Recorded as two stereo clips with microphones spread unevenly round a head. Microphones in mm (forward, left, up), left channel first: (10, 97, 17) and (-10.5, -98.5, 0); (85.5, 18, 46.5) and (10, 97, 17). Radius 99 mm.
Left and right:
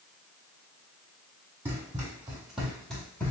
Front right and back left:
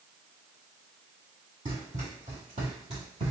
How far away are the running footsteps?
About 2 m.